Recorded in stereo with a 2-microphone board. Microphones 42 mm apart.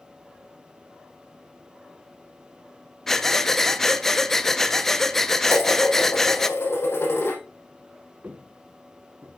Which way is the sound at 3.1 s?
10° left (ahead or behind).